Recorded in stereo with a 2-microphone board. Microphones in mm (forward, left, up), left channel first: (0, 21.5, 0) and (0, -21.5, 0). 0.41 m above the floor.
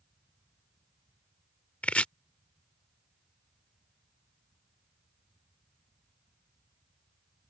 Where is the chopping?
30° left (ahead or behind).